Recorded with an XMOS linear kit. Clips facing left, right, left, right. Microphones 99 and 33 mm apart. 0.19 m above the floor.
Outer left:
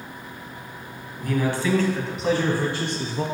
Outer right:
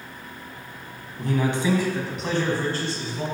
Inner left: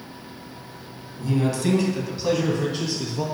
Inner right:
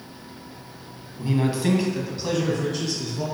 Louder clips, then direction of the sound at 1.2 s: Even, even; 30° right (ahead or behind).